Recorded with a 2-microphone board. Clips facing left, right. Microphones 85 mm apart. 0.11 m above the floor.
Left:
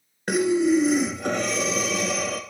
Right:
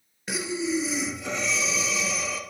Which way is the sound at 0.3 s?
55° left (ahead or behind).